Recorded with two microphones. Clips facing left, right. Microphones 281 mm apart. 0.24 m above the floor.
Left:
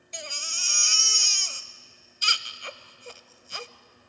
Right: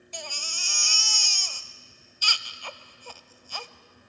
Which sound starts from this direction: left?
A baby crying, at 0.1 s.